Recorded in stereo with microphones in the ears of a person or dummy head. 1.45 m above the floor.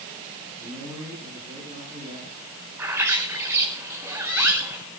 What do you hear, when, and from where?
0.6 s a man speaking: 30° right (ahead or behind), 9.5 m
2.8 s a bird: 15° right (ahead or behind), 5 m